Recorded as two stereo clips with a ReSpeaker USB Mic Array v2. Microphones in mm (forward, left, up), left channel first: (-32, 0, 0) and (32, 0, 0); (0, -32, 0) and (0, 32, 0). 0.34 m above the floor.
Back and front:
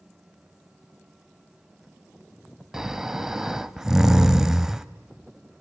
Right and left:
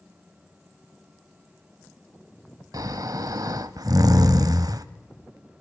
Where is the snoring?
80° left, 0.6 m.